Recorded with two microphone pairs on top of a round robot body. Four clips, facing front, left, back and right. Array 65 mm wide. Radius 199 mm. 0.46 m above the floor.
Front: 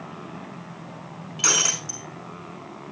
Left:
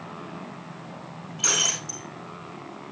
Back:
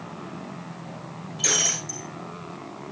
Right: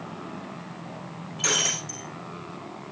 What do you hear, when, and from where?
1.4 s breaking glass: 5° left, 5 m